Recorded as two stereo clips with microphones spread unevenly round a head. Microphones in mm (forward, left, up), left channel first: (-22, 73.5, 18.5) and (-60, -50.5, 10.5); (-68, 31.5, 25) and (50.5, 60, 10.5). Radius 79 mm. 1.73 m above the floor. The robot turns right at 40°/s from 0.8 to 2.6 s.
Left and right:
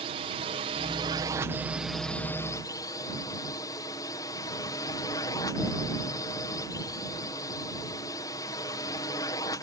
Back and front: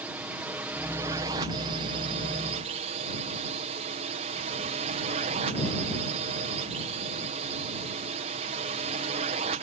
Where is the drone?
65° right; by 9.6 s 10° left.